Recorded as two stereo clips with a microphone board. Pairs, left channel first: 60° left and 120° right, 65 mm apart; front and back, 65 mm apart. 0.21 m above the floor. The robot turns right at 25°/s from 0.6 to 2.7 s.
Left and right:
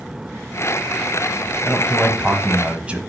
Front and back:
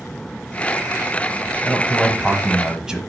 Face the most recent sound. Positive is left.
turn(degrees=-125)